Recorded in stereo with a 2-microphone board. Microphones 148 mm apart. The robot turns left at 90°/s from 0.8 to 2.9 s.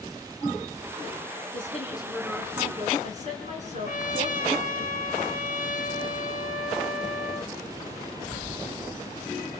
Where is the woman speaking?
70° left, 3.5 m; by 4.8 s 55° right, 3.5 m.